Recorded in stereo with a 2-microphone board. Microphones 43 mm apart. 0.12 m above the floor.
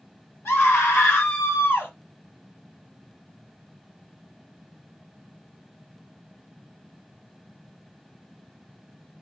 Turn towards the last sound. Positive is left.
turn(degrees=60)  # may be behind; listen again after turning